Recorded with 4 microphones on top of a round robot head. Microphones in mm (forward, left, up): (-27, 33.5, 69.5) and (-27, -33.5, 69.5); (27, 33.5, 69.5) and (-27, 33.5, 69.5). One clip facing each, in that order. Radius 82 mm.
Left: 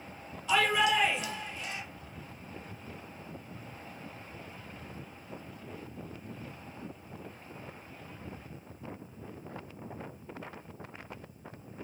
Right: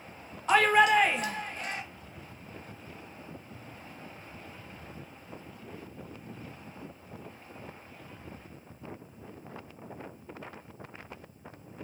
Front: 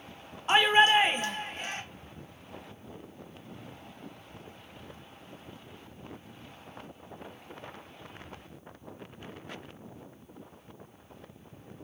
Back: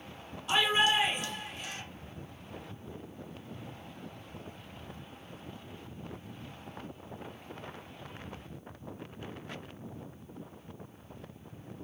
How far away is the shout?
About 0.7 m.